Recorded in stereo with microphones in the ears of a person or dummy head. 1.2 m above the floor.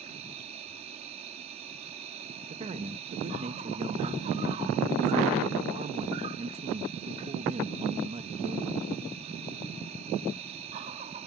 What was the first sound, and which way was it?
An insect, 35° right (ahead or behind).